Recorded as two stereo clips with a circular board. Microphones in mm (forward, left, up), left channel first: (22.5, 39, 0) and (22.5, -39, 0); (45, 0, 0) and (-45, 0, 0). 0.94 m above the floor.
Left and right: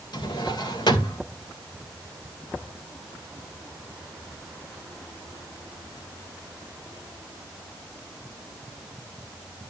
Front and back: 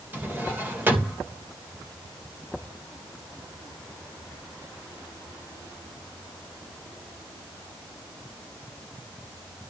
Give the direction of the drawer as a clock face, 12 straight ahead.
8 o'clock.